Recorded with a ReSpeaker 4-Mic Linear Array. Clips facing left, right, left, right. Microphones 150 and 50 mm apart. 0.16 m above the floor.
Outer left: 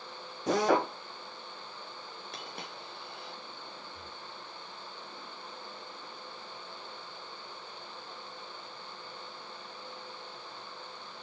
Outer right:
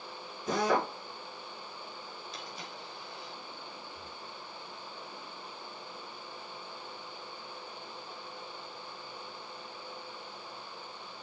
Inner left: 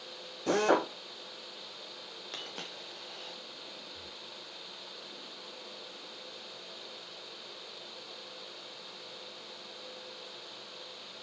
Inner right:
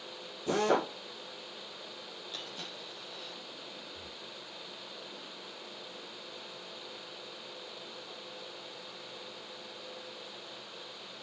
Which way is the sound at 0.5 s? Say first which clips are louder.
Outer left 3 dB, inner left 2 dB; 65° left (ahead or behind).